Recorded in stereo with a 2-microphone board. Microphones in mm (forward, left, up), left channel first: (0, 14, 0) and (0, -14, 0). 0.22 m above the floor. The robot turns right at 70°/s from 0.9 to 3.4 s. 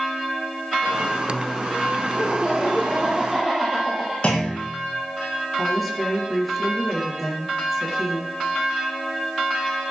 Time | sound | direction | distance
2.2 | laughter | 105° left | 5 m
4.2 | a clunk | 35° left (ahead or behind) | 7.5 m
5.6 | a woman speaking | centre (ahead or behind) | 4.5 m